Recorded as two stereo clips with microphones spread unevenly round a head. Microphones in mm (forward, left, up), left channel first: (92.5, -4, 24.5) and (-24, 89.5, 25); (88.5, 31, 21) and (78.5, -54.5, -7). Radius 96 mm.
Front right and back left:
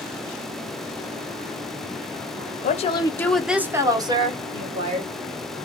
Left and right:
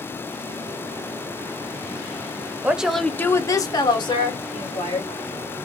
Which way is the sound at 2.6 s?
15° right.